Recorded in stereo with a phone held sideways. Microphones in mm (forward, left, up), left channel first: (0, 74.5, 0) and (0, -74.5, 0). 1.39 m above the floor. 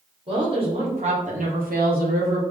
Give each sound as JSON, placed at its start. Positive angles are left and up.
{"t": 0.3, "sound": "a woman speaking", "side_deg": -35, "distance_m": 1.4}